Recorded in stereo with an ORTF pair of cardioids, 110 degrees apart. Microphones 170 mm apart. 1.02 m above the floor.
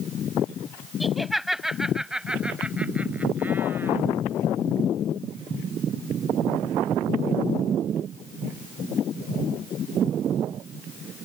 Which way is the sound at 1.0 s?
Straight ahead.